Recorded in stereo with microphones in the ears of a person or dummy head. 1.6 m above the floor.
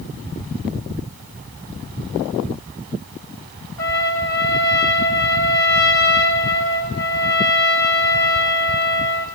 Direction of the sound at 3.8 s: 15° left (ahead or behind).